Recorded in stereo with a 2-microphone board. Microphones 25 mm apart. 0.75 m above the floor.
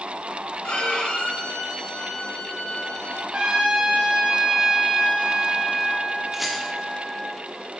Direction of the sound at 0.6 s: 75° left (ahead or behind).